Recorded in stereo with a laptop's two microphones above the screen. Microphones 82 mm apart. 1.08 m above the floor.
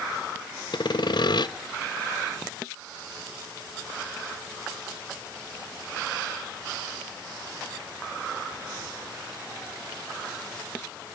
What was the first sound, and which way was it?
Sawing, 65° left (ahead or behind).